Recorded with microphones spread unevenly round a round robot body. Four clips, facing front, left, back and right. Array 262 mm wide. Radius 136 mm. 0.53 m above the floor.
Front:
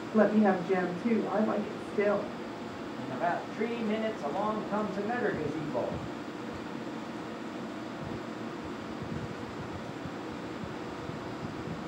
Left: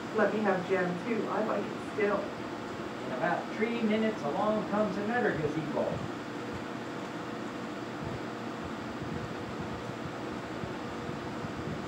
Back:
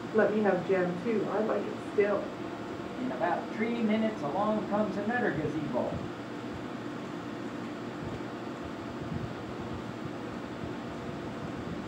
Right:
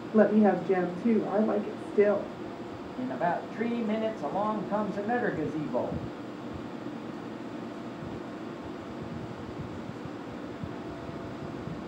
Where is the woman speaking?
75° right, 1.2 m.